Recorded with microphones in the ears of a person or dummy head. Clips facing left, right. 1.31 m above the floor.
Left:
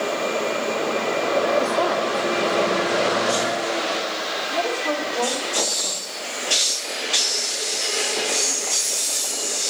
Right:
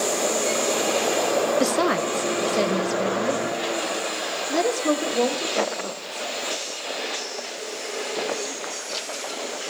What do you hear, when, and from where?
1.6 s a woman speaking: 30° right (ahead or behind), 0.8 m; by 6.3 s 35° right (ahead or behind), 5.5 m